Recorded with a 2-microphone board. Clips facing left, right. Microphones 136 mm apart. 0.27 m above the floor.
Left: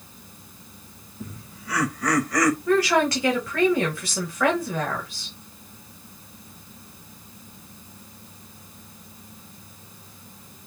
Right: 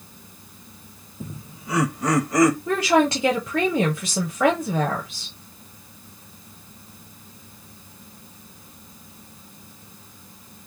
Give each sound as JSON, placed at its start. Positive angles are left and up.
{"t": 1.2, "sound": "laughter", "side_deg": -25, "distance_m": 0.9}
{"t": 2.7, "sound": "a woman speaking", "side_deg": -20, "distance_m": 1.1}